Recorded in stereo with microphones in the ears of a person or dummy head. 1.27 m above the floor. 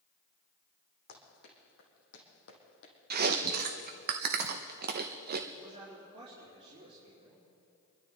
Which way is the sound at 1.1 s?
55° left (ahead or behind).